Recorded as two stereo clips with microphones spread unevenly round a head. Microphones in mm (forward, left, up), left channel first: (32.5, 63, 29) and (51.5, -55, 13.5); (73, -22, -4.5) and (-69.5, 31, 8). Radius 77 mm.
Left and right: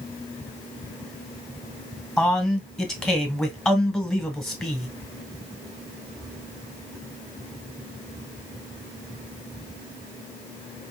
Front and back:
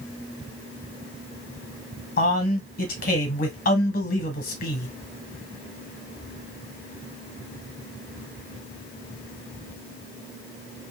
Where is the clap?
I don't hear a clap.